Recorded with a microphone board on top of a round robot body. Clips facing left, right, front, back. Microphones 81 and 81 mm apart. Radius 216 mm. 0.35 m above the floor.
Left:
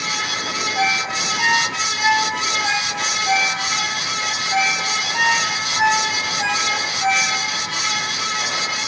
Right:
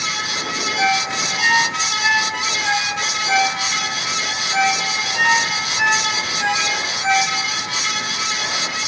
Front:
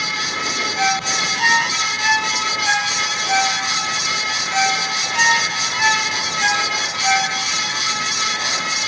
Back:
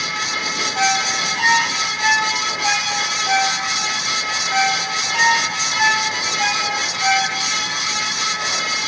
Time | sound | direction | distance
0.8 | a ringtone | 140° left | 7 m